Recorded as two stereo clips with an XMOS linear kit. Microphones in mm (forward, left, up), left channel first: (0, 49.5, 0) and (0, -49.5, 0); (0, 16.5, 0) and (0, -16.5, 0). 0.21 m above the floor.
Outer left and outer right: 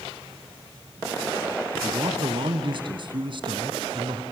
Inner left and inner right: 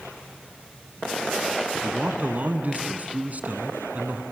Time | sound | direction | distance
1.8 | a man speaking | 55° right (ahead or behind) | 1.9 m